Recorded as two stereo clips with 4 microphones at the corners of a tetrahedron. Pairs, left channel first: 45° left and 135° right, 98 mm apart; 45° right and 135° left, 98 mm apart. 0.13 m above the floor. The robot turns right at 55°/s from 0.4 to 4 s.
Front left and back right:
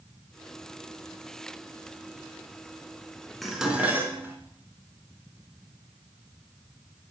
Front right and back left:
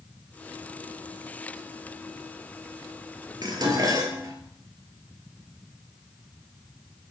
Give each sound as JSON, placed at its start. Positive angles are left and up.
{"t": 3.4, "sound": "dishes clattering", "azimuth_deg": 135, "distance_m": 1.0}